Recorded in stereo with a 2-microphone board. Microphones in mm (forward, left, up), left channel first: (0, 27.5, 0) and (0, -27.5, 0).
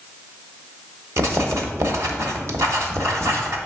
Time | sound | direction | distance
1.2 | writing | 65° right (ahead or behind) | 1.1 m